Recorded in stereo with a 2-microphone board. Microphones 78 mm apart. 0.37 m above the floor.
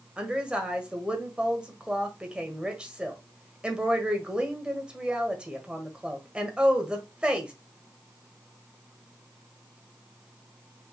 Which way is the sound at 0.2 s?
15° right (ahead or behind).